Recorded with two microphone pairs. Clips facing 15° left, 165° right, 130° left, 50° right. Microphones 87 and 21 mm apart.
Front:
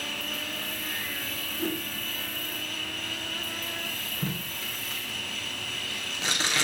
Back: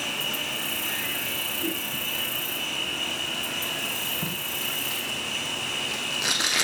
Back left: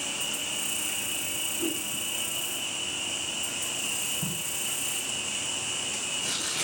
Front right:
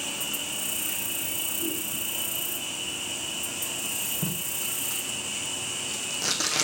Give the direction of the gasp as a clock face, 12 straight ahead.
I don't hear a gasp.